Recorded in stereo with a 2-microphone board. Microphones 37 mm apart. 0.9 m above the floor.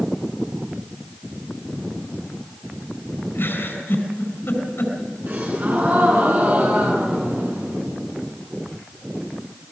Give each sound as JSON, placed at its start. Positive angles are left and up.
{"t": 3.4, "sound": "a giggle", "side_deg": 85, "distance_m": 5.0}
{"t": 5.3, "sound": "a gasp", "side_deg": -55, "distance_m": 7.0}